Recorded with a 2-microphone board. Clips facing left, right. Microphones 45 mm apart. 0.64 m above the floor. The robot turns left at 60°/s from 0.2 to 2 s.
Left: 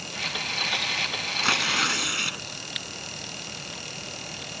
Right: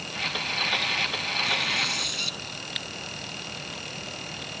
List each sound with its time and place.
1.4 s tearing paper: 85° left; by 2.4 s 50° left